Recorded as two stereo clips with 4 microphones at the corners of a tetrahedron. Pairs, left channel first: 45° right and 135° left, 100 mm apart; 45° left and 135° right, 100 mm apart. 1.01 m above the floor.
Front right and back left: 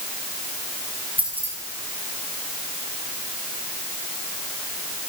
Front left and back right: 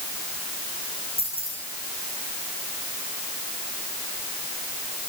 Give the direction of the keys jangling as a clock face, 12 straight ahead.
10 o'clock.